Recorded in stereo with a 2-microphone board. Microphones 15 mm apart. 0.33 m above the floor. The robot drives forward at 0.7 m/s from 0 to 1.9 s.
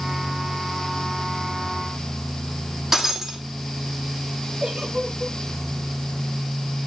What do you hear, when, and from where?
2.9 s breaking glass: 30° right (ahead or behind), 2.5 m
4.6 s a giggle: 80° right, 4.5 m